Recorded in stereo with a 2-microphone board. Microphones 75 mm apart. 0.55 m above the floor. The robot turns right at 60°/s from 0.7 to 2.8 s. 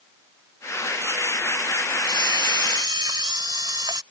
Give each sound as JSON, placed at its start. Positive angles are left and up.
{"t": 2.0, "sound": "a camera shutter", "azimuth_deg": -110}